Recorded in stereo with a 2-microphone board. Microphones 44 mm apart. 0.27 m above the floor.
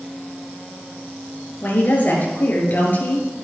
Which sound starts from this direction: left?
A woman speaking, at 1.6 s.